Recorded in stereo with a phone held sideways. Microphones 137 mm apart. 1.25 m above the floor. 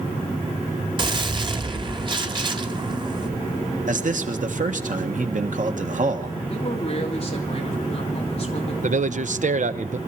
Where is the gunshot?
35° right (ahead or behind), 1.3 m.